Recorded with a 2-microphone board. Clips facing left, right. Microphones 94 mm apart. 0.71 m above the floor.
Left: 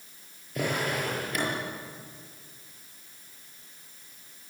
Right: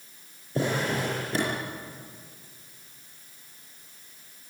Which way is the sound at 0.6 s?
30° right (ahead or behind).